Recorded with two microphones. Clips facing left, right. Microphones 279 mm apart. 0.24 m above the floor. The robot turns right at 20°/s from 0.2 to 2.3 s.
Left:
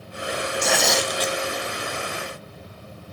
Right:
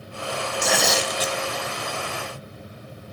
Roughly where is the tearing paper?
Centre.